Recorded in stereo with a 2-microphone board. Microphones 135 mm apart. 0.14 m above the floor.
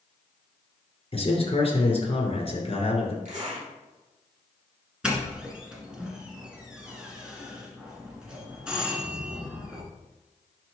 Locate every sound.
1.1 s a man speaking: 40° left (ahead or behind), 2.5 m
3.2 s a zipper: 55° right (ahead or behind), 3.5 m
5.0 s a doorbell: 5° right (ahead or behind), 1.8 m